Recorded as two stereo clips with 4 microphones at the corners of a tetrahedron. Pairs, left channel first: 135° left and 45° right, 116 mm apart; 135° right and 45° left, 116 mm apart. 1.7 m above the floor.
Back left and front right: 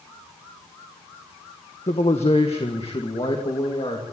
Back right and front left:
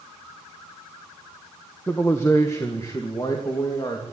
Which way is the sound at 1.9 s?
155° left.